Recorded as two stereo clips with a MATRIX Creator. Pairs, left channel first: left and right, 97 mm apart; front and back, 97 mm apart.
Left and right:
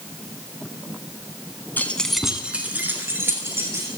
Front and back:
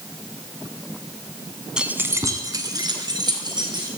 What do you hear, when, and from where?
1.8 s keys jangling: 115° left, 0.9 m; by 3.9 s 145° right, 2.5 m